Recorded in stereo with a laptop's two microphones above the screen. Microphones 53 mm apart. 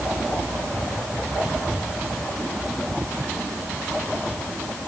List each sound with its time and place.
Only background noise.